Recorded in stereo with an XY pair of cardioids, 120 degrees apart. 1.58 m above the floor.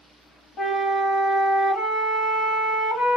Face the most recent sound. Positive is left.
turn(degrees=60)